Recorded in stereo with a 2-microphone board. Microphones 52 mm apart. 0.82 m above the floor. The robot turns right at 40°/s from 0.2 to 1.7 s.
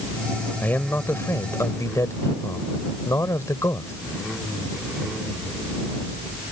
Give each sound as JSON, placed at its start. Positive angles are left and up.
{"t": 0.6, "sound": "a man speaking", "azimuth_deg": 35}